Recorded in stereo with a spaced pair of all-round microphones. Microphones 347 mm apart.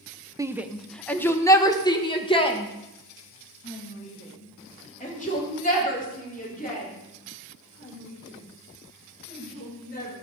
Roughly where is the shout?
Centre.